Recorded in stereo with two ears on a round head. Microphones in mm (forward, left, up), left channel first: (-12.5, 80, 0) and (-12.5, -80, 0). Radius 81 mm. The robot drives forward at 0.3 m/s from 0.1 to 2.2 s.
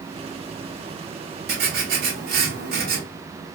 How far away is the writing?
About 1.5 m.